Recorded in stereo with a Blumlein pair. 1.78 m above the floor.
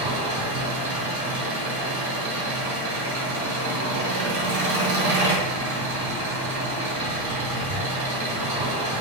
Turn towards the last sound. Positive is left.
turn(degrees=-55)